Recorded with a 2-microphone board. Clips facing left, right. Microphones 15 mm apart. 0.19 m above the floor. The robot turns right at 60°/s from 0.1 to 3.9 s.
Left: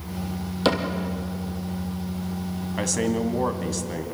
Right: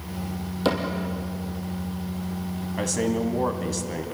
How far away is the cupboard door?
About 3 m.